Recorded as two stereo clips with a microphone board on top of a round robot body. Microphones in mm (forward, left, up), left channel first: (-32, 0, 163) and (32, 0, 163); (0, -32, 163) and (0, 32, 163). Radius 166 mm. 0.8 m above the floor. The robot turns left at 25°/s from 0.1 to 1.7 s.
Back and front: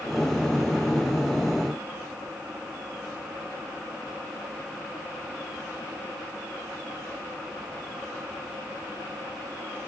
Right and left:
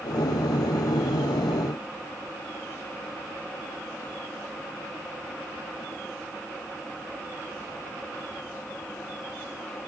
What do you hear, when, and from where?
Only background noise.